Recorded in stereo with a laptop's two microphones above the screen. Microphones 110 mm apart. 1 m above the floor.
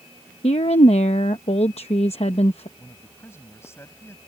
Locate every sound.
0.4 s a woman speaking: 75° left (ahead or behind)
2.8 s a man speaking: 25° left (ahead or behind)